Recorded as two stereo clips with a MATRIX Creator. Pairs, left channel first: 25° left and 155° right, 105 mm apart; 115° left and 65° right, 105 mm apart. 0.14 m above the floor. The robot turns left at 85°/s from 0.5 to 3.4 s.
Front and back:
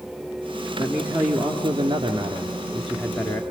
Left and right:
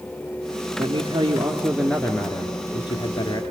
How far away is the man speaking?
About 1.7 m.